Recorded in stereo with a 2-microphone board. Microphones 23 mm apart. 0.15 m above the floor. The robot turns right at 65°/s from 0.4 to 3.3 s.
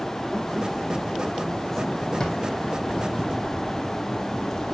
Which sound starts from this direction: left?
A drawer, at 2.2 s.